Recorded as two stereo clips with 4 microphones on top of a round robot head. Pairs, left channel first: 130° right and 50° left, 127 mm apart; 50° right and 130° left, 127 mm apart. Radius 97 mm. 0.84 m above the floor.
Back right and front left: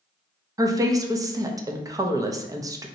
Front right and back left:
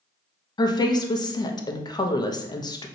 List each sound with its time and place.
0.6 s a woman speaking: 5° right, 0.6 m